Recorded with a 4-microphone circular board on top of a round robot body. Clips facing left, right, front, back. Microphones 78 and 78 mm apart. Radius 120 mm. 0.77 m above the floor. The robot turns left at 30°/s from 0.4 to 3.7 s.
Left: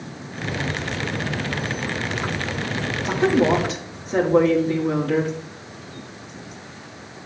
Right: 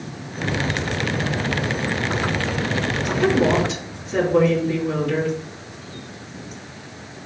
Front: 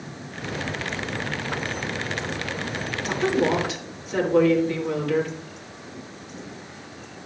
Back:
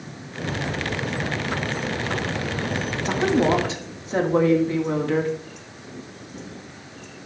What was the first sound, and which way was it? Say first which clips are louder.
A woman speaking: left 1 dB, back 2 dB; 150° left.